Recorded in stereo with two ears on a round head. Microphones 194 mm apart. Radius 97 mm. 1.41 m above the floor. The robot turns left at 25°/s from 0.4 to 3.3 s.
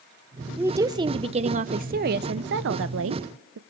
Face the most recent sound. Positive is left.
turn(degrees=-80)